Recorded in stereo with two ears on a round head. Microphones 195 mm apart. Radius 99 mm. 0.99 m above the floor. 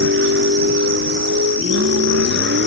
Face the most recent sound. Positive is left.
turn(degrees=-50)  # may be behind; listen again after turning